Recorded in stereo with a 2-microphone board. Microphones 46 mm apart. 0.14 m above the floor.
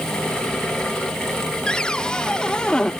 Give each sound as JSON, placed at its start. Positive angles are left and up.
{"t": 1.7, "sound": "a cupboard door", "side_deg": 20}